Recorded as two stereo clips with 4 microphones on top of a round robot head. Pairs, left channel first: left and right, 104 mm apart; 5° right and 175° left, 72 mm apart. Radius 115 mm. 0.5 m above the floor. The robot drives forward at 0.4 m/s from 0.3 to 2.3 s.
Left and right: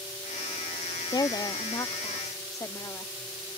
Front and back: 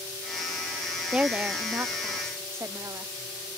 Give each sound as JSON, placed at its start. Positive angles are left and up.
{"t": 1.1, "sound": "a woman speaking", "azimuth_deg": 105}